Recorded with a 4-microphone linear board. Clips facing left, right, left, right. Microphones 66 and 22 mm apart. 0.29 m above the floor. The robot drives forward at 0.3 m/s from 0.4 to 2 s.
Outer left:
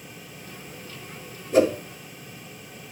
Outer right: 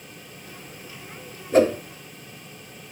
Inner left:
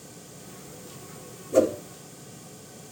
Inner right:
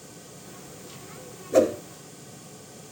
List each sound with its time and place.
1.5 s a whoosh: 35° right (ahead or behind), 1.4 m